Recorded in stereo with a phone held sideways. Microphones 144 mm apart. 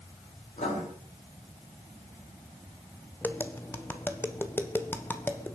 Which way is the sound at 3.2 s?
15° left (ahead or behind).